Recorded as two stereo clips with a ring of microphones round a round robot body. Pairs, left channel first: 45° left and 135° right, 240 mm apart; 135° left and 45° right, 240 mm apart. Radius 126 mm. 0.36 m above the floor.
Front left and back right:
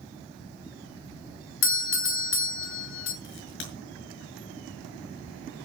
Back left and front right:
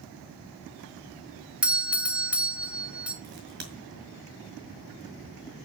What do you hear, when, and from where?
1.6 s a doorbell: 40° left, 2.0 m
3.2 s a crack: 5° left, 6 m